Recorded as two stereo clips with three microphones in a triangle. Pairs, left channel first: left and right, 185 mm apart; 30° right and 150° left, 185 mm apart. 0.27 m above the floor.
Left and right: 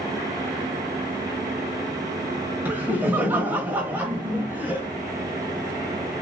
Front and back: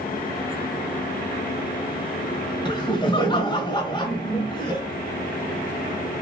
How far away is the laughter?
About 1.0 m.